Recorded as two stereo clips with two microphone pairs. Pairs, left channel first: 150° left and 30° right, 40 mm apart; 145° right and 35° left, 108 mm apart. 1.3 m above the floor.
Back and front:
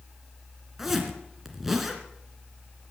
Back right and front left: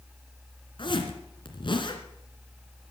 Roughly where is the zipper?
Behind right.